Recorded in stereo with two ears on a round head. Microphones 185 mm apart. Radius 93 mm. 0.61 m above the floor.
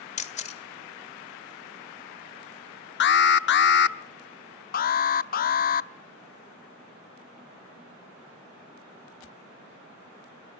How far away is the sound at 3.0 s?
About 0.7 m.